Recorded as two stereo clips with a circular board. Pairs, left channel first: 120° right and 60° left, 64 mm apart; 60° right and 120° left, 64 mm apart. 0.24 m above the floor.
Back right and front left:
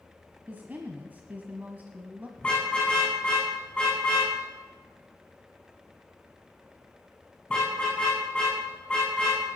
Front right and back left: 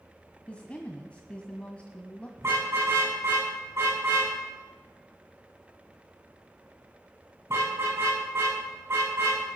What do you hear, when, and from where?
0.5 s a woman speaking: 5° left, 1.4 m
2.4 s a car horn: 165° left, 10 m